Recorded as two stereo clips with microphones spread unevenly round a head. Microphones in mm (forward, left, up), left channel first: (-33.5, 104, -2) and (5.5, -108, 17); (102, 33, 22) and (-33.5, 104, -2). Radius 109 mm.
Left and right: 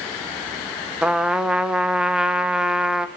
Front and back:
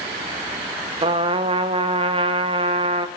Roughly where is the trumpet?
Behind right.